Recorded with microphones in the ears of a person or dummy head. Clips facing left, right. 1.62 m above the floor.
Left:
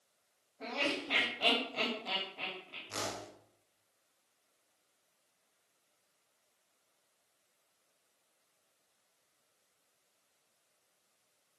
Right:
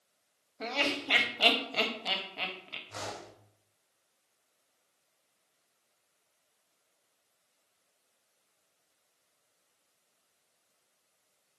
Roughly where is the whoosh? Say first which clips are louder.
Left 1 dB; left.